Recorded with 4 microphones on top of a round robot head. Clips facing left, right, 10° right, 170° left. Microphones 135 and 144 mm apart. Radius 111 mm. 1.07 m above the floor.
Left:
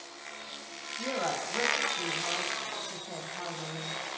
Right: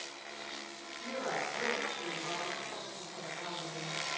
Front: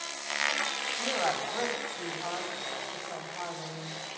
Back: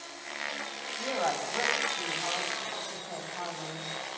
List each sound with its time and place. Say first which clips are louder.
1.0 s a woman speaking: left 5 dB, even; 85° left, 7 m